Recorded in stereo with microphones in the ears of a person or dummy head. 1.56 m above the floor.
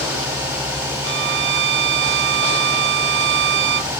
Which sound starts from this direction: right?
A violin, at 1.0 s.